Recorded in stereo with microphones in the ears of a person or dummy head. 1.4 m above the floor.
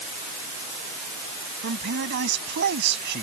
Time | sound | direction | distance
1.6 | a man speaking | 60° right (ahead or behind) | ?